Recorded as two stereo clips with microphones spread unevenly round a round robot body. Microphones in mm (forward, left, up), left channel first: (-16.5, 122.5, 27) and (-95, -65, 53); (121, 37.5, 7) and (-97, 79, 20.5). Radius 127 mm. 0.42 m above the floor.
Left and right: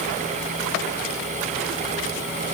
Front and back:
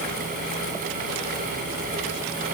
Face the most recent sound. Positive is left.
No sound to turn to.